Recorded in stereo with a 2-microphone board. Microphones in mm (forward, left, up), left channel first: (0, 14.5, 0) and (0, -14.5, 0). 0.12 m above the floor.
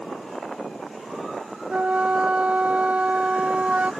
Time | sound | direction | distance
1.7 | a flute | 50° right (ahead or behind) | ?